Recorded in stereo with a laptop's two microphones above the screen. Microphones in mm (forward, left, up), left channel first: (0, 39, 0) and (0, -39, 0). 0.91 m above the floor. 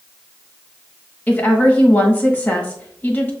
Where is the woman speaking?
20° left (ahead or behind), 1.1 m.